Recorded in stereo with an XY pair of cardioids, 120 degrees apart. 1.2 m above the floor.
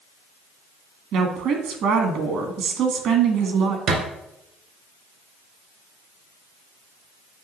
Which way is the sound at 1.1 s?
65° right.